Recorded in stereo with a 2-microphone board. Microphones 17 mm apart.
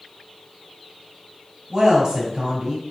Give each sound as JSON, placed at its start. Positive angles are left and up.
{"t": 1.7, "sound": "a woman speaking", "side_deg": -40, "distance_m": 1.8}